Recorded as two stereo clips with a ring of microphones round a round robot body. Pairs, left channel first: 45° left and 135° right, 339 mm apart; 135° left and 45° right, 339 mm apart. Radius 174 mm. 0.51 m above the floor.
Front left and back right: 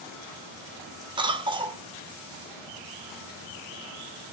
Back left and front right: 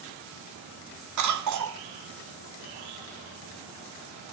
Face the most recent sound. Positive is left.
turn(degrees=-60)